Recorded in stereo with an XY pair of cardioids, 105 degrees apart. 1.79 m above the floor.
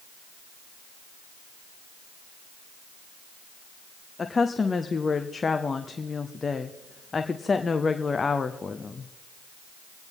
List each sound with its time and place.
4.2 s a woman speaking: 30° left, 0.8 m